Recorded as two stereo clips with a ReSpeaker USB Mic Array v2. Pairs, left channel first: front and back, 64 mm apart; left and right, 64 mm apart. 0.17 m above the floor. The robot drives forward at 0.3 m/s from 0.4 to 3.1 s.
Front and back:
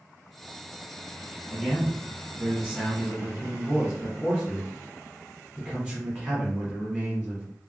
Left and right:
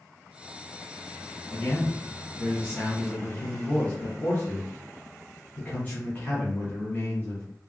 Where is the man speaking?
80° left, 1.3 m; by 7.5 s 120° left, 1.4 m.